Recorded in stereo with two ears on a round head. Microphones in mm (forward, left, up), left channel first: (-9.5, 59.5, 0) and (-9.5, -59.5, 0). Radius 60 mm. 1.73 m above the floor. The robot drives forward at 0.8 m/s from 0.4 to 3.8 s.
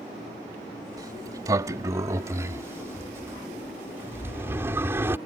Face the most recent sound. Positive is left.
turn(degrees=-20)  # may be behind; listen again after turning